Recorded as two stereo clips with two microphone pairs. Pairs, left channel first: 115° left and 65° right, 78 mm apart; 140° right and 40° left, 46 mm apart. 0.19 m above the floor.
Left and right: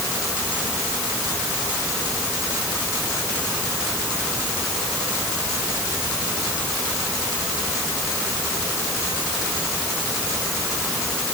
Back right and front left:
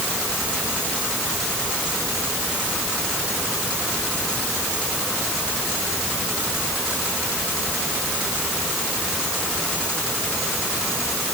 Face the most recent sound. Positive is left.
No sound to turn to.